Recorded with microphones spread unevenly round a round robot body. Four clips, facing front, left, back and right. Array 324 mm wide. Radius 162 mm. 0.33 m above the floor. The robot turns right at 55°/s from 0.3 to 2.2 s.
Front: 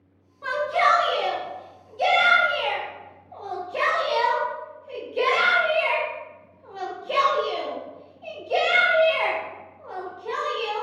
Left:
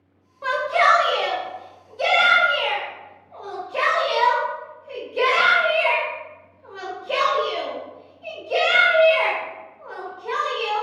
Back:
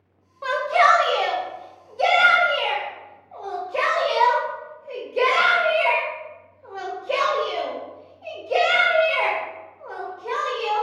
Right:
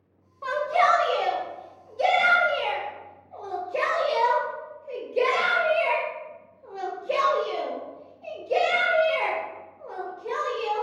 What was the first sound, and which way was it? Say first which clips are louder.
A shout: left 3 dB, back 3 dB; 125° left.